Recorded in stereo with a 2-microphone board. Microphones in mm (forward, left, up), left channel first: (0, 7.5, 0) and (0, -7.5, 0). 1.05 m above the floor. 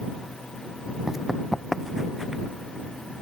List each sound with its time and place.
1.1 s running footsteps: 15° right (ahead or behind); by 2.4 s 20° right (ahead or behind)